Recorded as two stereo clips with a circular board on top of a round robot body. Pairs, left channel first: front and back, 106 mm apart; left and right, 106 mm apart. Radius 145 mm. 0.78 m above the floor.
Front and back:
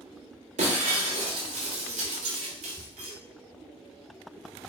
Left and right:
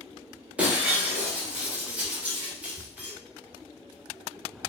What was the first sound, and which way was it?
Breaking glass, 170° right.